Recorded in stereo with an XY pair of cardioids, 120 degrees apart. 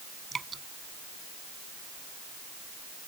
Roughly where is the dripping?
Ahead right.